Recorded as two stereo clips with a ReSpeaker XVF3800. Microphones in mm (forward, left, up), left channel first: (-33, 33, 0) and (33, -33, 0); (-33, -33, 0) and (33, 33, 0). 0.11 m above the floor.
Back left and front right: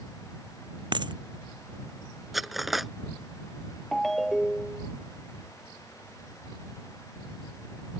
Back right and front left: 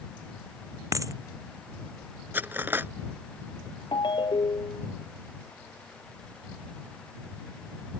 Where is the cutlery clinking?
40° left.